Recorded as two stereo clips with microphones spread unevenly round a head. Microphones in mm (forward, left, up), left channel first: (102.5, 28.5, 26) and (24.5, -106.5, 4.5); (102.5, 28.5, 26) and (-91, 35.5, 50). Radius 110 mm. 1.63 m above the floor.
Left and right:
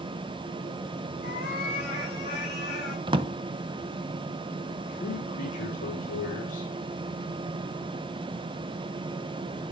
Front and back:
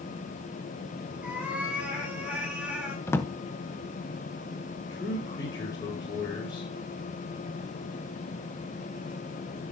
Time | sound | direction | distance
1.2 | a cat meowing | 95° left | 5.5 m
3.1 | a drawer | 85° right | 0.7 m
4.9 | a man speaking | 70° left | 4.5 m